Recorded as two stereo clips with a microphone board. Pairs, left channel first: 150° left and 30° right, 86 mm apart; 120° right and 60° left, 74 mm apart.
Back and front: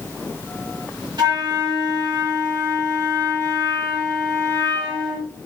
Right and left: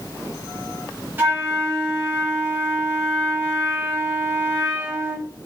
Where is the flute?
Straight ahead, 1.9 m.